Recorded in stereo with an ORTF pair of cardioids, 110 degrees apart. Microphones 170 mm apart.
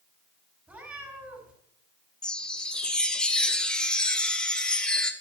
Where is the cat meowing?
10° right, 7.5 m.